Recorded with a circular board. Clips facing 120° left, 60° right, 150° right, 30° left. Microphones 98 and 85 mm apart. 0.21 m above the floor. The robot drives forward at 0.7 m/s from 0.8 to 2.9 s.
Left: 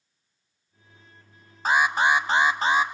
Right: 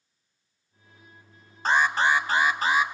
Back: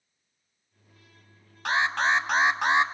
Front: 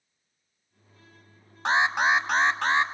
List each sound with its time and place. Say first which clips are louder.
1.6 s an alarm: left 1 dB, front 2 dB; 40° left, 0.8 m; by 2.9 s 155° left, 0.9 m